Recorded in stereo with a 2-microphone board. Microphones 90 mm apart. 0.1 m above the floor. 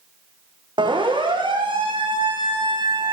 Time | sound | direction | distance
0.8 | a siren | 70° right (ahead or behind) | 5.5 m